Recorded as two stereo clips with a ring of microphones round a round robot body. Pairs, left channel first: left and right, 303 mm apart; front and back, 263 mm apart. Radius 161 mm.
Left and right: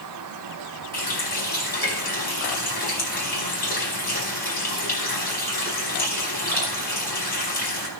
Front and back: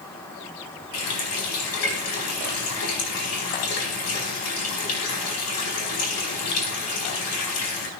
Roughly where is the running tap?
Ahead left.